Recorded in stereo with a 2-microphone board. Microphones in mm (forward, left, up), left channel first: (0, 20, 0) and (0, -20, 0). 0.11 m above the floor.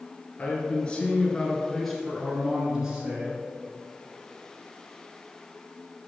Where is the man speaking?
35° left (ahead or behind), 2 m; by 3.4 s 30° right (ahead or behind), 1.9 m.